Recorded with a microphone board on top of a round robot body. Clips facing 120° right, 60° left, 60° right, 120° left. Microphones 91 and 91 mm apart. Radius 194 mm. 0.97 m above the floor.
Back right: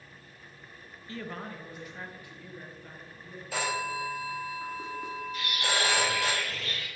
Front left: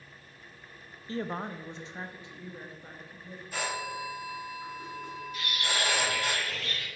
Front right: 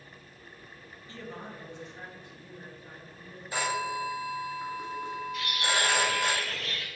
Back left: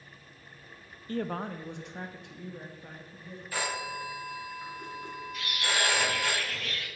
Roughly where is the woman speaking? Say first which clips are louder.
Front left 5 dB, back left 9 dB; left.